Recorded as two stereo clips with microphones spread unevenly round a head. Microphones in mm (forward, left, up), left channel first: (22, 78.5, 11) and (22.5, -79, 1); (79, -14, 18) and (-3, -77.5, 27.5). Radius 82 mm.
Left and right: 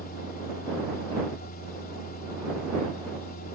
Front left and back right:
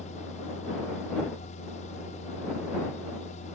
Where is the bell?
I don't hear a bell.